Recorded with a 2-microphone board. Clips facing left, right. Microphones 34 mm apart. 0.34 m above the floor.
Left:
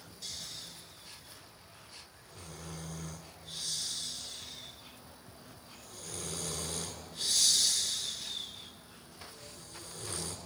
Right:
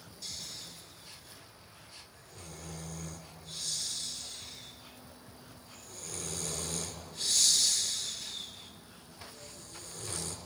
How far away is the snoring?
About 3 m.